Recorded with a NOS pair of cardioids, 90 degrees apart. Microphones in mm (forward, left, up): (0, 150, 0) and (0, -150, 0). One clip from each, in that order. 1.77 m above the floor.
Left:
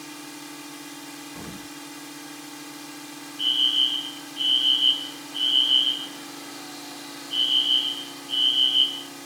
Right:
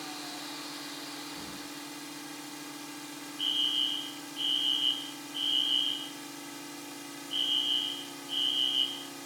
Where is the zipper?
I don't hear a zipper.